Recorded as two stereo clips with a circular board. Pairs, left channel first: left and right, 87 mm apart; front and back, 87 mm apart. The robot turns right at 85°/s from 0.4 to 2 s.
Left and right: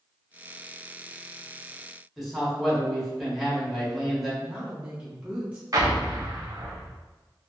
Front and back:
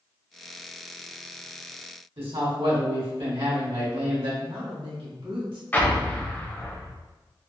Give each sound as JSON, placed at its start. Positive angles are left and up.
{"t": 2.2, "sound": "a man speaking", "azimuth_deg": 180, "distance_m": 1.4}
{"t": 4.4, "sound": "a woman speaking", "azimuth_deg": -165, "distance_m": 1.3}
{"t": 5.7, "sound": "an explosion", "azimuth_deg": -60, "distance_m": 0.6}